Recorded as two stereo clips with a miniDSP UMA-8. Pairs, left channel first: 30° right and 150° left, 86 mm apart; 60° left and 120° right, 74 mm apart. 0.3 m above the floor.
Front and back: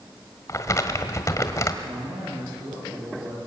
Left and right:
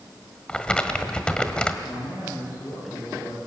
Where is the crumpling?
10° right, 1.6 m.